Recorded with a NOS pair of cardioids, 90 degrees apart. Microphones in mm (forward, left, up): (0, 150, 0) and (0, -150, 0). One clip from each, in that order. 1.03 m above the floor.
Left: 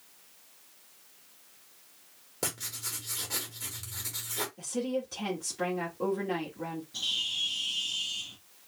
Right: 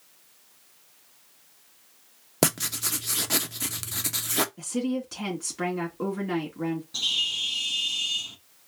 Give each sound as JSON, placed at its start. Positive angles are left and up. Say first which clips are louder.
{"t": 2.4, "sound": "writing", "louder": "right 10 dB", "azimuth_deg": -60, "distance_m": 0.6}
{"t": 4.6, "sound": "a woman speaking", "louder": "right 2 dB", "azimuth_deg": -55, "distance_m": 2.0}
{"t": 6.9, "sound": "a bird", "louder": "right 5 dB", "azimuth_deg": -45, "distance_m": 1.5}